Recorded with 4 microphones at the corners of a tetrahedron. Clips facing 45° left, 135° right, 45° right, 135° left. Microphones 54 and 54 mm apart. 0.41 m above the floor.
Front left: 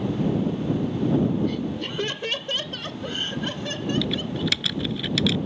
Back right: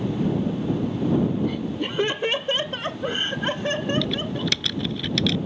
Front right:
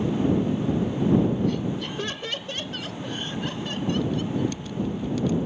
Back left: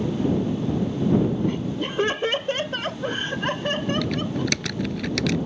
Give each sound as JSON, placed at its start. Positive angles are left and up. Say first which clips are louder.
{"t": 1.4, "sound": "laughter", "louder": "back right 1 dB, back left 1 dB", "azimuth_deg": 155}
{"t": 4.0, "sound": "typing on a keyboard", "louder": "even, even", "azimuth_deg": 130}